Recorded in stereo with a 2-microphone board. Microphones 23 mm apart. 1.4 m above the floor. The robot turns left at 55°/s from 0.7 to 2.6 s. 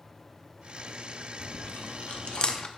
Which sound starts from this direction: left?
Chewing, at 1.4 s.